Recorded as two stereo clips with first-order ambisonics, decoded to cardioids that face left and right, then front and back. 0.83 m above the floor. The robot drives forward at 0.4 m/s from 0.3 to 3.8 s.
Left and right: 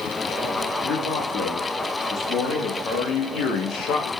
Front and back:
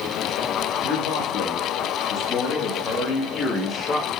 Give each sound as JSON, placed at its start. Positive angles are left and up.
{"t": 0.8, "sound": "a man speaking", "azimuth_deg": 30, "distance_m": 2.0}